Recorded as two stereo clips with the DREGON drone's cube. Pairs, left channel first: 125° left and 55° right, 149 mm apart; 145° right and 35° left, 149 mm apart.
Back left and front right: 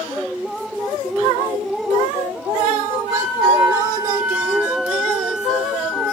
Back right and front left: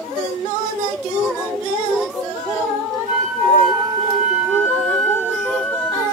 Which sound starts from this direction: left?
A flute, at 3.1 s.